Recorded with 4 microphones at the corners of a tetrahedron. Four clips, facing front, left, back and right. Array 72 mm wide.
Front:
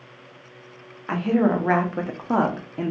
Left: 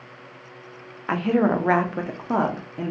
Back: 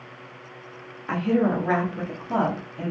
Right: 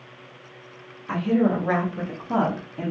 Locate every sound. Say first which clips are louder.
1.1 s a woman speaking: left 1 dB, front 2 dB; 95° left, 0.8 m; by 2.9 s 10° left, 0.8 m